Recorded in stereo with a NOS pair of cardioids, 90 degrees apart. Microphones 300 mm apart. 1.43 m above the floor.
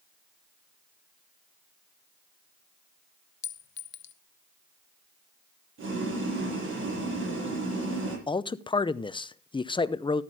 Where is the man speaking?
15° left, 0.7 m.